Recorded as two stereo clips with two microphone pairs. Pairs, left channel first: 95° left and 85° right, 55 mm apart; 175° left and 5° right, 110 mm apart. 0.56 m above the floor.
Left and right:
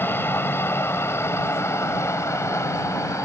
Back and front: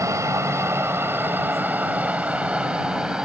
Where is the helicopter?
50° left; by 3.2 s 75° left.